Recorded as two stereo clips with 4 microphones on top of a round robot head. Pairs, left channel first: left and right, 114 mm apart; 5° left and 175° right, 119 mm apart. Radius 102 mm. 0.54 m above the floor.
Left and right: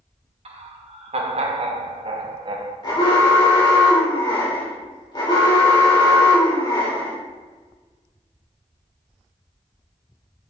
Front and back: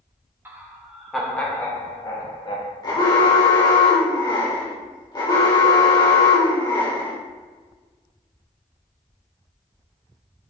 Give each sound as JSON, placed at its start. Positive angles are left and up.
{"t": 0.5, "sound": "laughter", "azimuth_deg": -105, "distance_m": 1.5}
{"t": 2.8, "sound": "an alarm", "azimuth_deg": 45, "distance_m": 3.0}